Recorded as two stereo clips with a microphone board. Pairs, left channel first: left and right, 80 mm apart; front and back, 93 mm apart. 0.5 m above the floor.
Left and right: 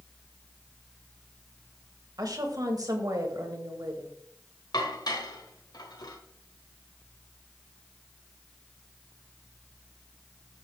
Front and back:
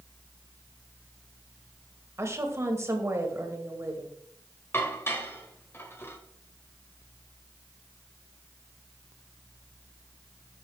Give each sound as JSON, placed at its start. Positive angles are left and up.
{"t": 2.2, "sound": "a woman speaking", "azimuth_deg": -125, "distance_m": 1.8}
{"t": 4.7, "sound": "dishes clattering", "azimuth_deg": 60, "distance_m": 1.4}